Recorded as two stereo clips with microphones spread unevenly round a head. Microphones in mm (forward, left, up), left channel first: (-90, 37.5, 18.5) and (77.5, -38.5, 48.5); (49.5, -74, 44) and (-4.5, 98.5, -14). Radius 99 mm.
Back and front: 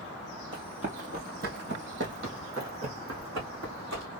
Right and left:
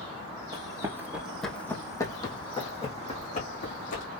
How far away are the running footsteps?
About 1.9 m.